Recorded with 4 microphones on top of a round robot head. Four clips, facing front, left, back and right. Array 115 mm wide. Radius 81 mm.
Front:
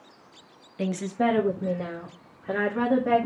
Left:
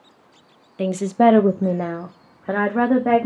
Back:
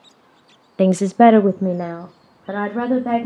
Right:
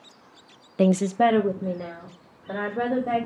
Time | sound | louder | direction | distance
0.8 | a woman speaking | left 3 dB, back 14 dB | 160° right | 0.5 m